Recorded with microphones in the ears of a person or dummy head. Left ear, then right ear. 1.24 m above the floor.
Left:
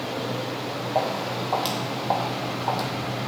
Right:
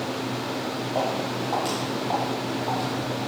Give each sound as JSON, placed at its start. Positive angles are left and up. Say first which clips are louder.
{"t": 0.9, "sound": "footsteps", "louder": "left 1 dB", "side_deg": 15, "distance_m": 2.5}